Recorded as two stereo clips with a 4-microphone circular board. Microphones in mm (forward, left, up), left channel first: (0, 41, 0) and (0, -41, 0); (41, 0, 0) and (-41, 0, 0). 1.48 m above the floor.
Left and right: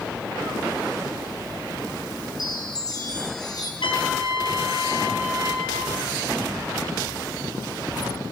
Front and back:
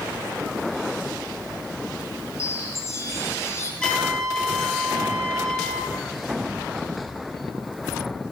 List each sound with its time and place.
2.4 s a chime: 55° left, 5.5 m
3.8 s a trumpet: 80° left, 6.5 m